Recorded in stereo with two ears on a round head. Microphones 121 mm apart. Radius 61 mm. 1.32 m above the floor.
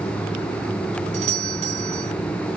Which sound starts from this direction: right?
A doorbell, at 1.1 s.